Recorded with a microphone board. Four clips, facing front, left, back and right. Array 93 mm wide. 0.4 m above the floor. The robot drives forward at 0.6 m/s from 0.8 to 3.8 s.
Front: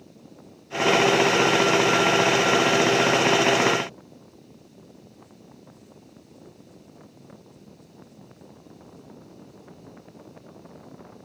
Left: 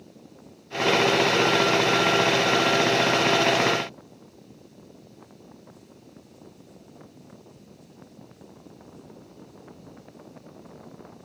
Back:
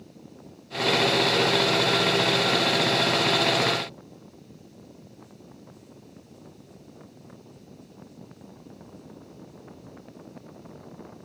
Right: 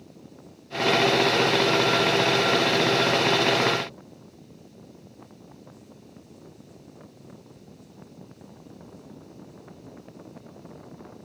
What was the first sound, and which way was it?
Only background noise.